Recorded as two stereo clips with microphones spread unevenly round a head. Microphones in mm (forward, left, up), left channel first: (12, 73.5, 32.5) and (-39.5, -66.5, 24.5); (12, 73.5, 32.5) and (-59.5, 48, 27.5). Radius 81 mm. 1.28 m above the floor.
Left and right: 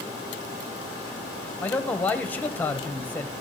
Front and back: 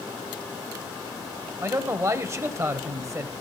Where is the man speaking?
150° left, 0.9 m.